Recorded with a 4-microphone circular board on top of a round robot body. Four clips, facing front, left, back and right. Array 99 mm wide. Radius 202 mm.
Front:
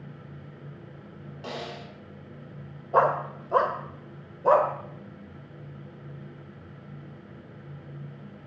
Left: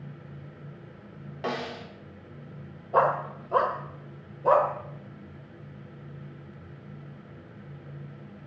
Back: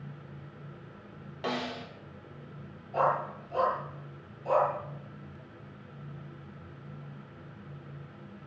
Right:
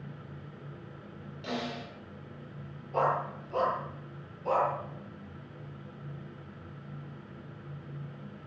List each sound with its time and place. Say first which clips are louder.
1.4 s a snare drum: left 4 dB, back 3 dB; 110° left, 3 m
2.9 s a dog barking: left 5 dB, front 5 dB; 30° left, 1.1 m